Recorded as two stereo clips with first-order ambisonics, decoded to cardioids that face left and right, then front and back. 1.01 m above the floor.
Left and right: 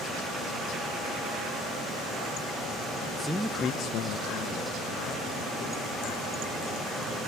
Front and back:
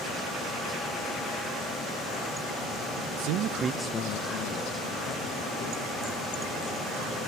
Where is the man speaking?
170° right, 0.9 m; by 7.2 s 35° left, 5 m.